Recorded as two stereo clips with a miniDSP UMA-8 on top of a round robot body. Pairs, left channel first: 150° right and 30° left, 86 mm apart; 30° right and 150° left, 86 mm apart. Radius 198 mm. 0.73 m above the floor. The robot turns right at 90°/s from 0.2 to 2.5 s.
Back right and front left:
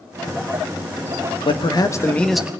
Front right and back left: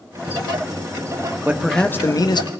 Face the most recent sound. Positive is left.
turn(degrees=-45)